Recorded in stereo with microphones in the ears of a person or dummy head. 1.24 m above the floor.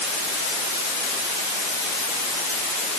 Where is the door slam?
I don't hear a door slam.